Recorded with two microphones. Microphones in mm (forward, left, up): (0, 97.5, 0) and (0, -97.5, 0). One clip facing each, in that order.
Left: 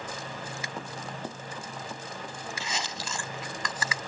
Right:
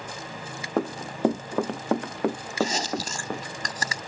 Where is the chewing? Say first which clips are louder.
Right 14 dB; 40° right (ahead or behind).